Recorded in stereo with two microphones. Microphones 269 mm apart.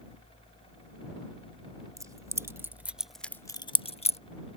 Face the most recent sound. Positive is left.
turn(degrees=25)  # may be behind; listen again after turning